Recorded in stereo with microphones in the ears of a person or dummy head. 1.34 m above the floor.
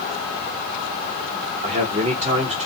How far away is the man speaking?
About 1.4 m.